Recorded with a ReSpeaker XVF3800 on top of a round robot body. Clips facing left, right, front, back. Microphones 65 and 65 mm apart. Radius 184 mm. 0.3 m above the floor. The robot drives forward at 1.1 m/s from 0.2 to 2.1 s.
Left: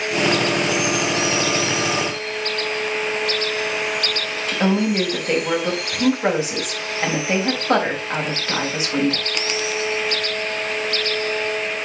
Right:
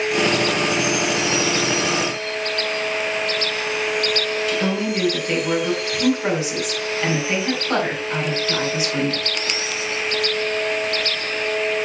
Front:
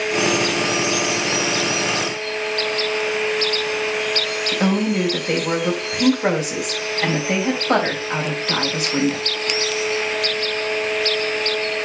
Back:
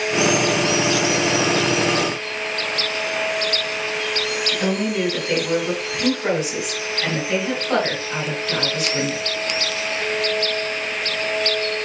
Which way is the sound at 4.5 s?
35° left.